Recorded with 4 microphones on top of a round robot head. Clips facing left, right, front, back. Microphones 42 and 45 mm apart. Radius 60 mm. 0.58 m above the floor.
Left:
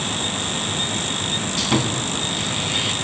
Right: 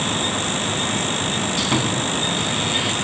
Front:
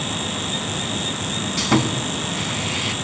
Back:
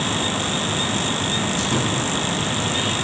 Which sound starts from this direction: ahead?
Sawing, at 1.6 s.